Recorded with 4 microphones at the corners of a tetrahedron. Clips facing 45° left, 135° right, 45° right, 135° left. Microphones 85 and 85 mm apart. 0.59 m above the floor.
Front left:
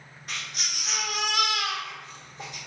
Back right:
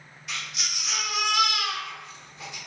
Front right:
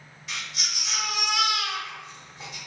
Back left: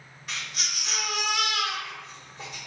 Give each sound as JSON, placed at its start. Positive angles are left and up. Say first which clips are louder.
{"t": 0.3, "sound": "a baby crying", "louder": "back right 1 dB, even", "azimuth_deg": 90, "distance_m": 1.1}